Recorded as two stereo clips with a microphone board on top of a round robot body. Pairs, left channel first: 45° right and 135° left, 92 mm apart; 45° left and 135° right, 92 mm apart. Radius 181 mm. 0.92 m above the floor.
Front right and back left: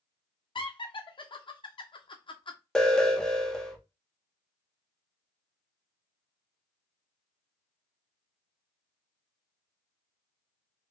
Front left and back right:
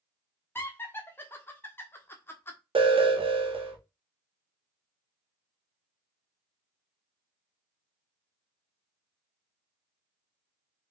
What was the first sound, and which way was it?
Laughter, 20° right.